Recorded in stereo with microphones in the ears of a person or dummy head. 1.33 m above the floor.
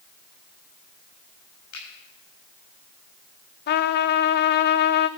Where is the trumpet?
55° left (ahead or behind), 0.8 m.